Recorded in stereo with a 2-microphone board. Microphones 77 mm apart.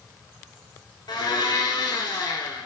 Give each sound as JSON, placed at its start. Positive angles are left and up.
{"t": 1.1, "sound": "a blender", "side_deg": 70, "distance_m": 0.5}